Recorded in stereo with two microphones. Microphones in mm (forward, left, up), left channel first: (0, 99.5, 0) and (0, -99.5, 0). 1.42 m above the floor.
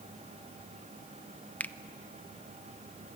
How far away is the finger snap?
About 0.5 m.